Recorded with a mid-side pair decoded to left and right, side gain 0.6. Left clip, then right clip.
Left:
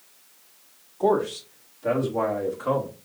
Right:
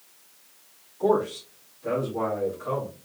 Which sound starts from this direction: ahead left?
A man speaking, at 1.0 s.